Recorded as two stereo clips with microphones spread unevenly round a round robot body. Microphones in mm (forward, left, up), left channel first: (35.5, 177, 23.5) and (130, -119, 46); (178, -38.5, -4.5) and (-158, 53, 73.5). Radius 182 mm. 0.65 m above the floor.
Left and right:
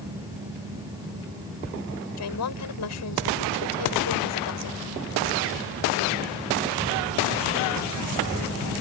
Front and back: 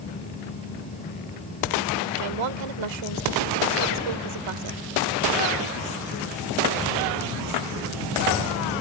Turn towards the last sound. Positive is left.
turn(degrees=150)